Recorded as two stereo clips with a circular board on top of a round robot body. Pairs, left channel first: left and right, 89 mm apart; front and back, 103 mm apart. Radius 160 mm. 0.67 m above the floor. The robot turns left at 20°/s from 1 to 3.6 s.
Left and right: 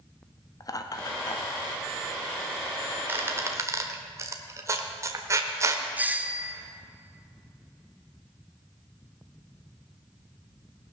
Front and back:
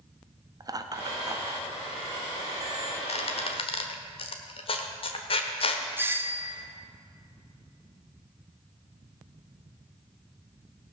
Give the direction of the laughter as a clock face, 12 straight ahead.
8 o'clock.